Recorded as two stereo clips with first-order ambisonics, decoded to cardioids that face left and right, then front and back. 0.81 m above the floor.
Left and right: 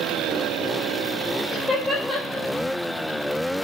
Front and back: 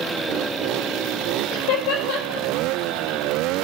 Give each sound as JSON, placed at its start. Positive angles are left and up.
{"t": 1.5, "sound": "laughter", "azimuth_deg": -5, "distance_m": 2.5}